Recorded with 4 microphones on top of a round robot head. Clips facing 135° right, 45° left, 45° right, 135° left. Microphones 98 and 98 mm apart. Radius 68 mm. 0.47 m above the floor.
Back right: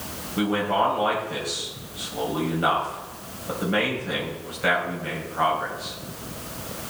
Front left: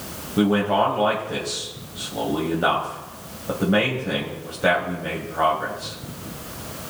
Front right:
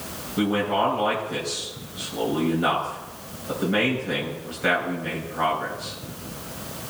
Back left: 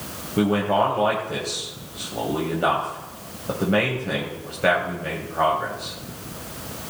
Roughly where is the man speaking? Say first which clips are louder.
Front left 4 dB, back left 3 dB; left.